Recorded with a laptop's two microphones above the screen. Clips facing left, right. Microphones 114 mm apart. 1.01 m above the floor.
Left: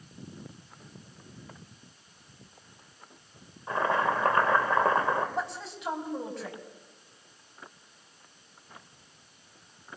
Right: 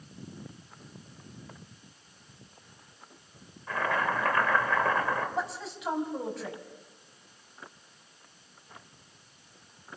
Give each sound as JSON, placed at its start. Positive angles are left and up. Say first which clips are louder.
{"t": 3.7, "sound": "boiling", "louder": "left 3 dB", "side_deg": 25, "distance_m": 4.0}
{"t": 5.3, "sound": "a woman speaking", "louder": "even", "side_deg": 0, "distance_m": 5.5}